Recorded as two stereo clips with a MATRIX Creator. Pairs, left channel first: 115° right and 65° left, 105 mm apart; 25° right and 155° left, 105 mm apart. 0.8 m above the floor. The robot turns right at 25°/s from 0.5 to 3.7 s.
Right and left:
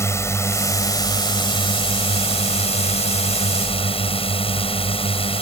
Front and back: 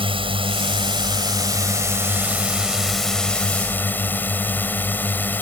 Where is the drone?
175° right; by 5.4 s 95° right.